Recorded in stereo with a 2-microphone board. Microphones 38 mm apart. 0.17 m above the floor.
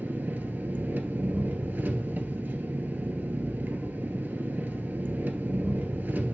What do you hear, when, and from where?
0.0 s an engine running: 55° right (ahead or behind), 0.9 m